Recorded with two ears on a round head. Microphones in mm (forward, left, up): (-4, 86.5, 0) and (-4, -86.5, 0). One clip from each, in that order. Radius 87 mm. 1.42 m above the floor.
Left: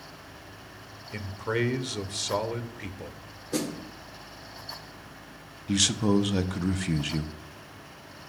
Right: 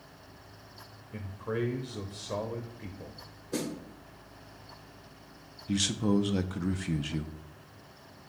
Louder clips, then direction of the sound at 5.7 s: Left 5 dB; 15° left (ahead or behind).